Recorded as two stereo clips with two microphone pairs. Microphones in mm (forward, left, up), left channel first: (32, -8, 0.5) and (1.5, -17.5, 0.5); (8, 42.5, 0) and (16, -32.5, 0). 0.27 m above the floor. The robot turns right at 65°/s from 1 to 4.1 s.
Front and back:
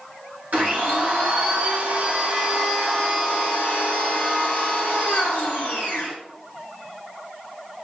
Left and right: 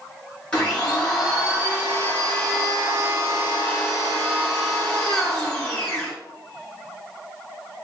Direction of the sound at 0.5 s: 170° left.